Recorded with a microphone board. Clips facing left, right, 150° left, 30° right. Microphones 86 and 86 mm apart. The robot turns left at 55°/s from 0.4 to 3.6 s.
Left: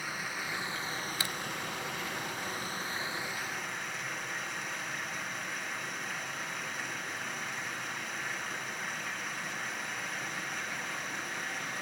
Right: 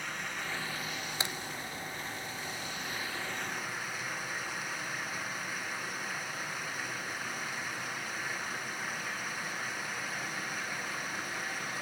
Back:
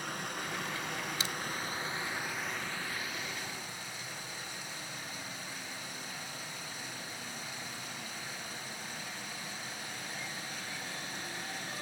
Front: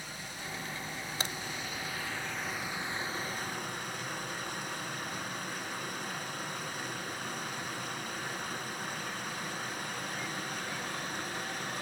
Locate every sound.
0.0 s running water: 170° left, 2.5 m; by 11.8 s 5° right, 2.5 m
1.2 s a crack: 35° right, 0.9 m; by 1.4 s 40° right, 0.9 m